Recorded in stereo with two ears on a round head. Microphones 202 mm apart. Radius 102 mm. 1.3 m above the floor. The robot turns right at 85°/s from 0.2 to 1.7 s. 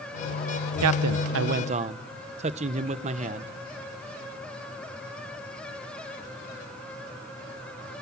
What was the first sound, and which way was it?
A man speaking, 105° right.